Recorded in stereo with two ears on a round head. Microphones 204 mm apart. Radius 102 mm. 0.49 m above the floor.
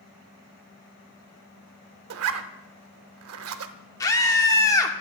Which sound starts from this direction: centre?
A scream, at 4.0 s.